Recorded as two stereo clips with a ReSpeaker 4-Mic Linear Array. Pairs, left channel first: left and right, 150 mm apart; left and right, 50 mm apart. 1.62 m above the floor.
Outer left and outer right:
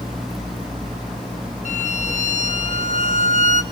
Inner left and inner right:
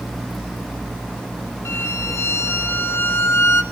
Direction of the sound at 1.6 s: 55° left (ahead or behind).